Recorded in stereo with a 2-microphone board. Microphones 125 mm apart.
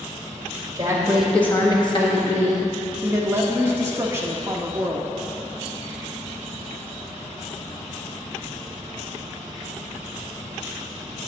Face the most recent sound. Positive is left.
turn(degrees=-20)  # may be behind; listen again after turning